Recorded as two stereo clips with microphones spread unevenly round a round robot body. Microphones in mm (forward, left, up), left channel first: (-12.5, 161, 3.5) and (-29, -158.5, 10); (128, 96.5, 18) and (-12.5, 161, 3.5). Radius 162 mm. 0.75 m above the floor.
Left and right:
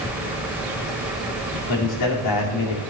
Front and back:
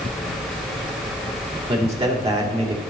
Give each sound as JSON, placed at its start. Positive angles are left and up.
{"t": 1.7, "sound": "a man speaking", "azimuth_deg": 110, "distance_m": 2.0}